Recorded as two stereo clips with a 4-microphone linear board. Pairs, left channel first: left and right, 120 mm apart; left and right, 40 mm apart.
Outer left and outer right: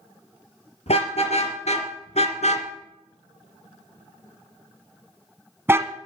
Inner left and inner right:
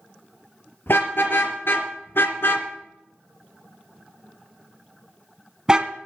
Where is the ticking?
I don't hear ticking.